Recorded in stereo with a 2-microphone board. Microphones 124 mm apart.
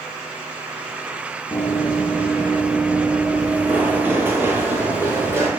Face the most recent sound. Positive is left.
turn(degrees=-25)  # may be behind; listen again after turning